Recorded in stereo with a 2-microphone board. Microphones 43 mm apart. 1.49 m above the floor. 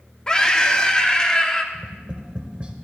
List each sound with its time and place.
0.3 s a scream: 20° left (ahead or behind), 0.9 m
1.7 s tapping: 25° right (ahead or behind), 1.0 m